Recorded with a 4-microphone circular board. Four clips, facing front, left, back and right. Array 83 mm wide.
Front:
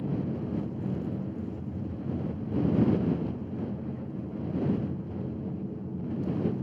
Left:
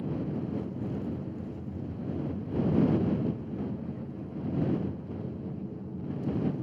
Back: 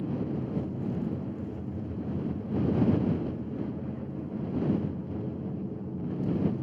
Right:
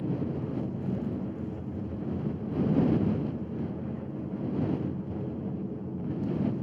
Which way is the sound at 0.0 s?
110° right.